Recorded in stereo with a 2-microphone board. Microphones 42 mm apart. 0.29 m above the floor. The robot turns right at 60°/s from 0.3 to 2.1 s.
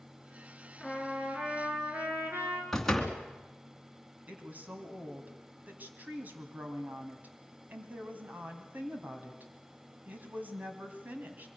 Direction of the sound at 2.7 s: 5° left (ahead or behind).